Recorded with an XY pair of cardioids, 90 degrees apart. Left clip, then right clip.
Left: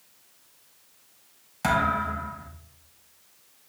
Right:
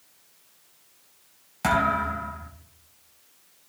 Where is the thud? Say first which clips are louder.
Right 1 dB; 10° right, 3.5 m.